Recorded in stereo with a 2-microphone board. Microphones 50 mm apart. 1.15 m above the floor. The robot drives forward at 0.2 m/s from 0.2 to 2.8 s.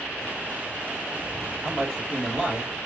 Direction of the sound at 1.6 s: 5° left (ahead or behind).